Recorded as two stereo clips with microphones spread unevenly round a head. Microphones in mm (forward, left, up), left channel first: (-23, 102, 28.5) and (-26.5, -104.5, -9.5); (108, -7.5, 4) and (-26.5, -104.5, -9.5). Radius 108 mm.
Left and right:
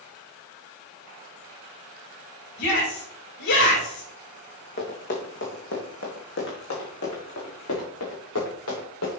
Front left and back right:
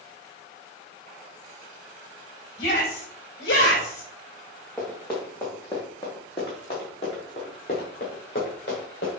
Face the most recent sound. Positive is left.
turn(degrees=85)